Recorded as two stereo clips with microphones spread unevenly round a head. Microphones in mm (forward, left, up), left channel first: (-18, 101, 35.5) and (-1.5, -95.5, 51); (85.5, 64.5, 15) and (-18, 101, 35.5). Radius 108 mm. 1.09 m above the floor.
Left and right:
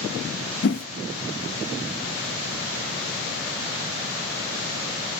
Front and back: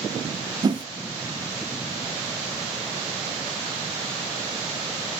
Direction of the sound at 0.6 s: 105° left.